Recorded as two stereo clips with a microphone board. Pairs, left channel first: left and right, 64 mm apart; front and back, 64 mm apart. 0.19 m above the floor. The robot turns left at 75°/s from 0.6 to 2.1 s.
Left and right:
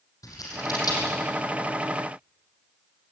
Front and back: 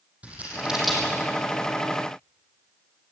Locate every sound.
0.2 s scissors: 115° left, 7 m; by 1.2 s 70° left, 7 m